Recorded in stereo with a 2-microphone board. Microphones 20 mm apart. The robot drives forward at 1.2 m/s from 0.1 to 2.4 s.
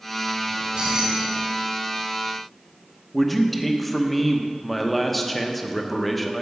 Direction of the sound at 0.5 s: 60° right (ahead or behind).